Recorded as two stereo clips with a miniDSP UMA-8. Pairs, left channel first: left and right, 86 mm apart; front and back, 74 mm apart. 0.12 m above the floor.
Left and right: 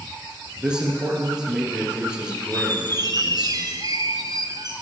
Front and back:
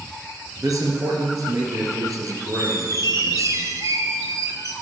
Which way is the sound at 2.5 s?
130° right.